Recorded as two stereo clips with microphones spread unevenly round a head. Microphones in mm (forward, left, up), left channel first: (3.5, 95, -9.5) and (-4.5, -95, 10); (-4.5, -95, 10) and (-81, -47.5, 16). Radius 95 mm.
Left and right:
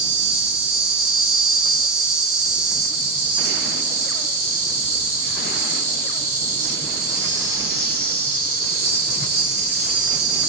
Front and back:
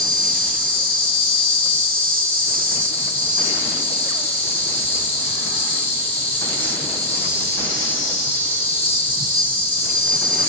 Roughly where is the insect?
Right.